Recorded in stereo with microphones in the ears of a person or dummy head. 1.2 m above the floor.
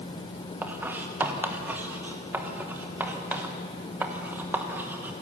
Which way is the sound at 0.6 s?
5° right (ahead or behind).